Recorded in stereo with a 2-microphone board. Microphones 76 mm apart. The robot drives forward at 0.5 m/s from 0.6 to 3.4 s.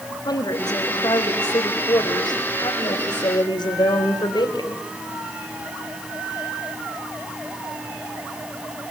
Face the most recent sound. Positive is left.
turn(degrees=75)  # may be behind; listen again after turning